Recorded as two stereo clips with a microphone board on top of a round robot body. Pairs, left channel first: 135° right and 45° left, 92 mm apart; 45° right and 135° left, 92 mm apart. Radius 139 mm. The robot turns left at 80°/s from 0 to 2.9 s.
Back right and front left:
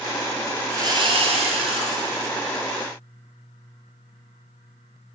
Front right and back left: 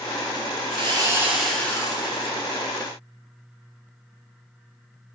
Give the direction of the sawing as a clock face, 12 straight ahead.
8 o'clock.